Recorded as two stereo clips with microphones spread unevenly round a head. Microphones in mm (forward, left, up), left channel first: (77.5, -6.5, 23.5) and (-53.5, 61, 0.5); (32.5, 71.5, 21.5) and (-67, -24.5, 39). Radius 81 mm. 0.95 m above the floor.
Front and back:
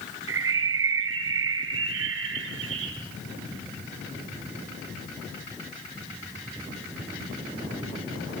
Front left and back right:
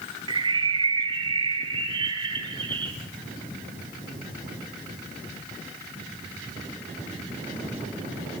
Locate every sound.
0.3 s a bird: 170° left, 2.5 m